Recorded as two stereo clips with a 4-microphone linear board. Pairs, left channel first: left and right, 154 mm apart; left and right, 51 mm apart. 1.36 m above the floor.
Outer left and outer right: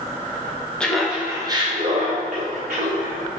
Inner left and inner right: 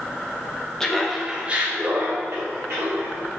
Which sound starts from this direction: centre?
Laughter, at 0.8 s.